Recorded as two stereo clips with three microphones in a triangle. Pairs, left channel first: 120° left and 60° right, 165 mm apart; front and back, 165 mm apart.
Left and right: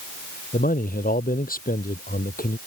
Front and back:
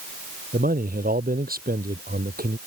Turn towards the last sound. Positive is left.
turn(degrees=150)